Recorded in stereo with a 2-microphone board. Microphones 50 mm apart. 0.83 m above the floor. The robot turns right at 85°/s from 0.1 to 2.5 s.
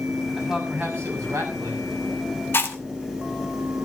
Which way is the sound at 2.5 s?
50° left (ahead or behind).